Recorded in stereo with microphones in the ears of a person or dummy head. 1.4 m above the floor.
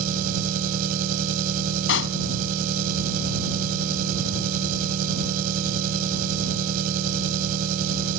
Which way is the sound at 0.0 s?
55° right (ahead or behind).